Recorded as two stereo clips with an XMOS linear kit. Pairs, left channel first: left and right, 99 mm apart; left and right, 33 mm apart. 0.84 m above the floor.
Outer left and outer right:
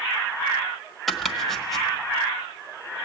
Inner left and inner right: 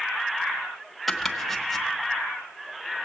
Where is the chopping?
Centre (ahead or behind), 1.2 m.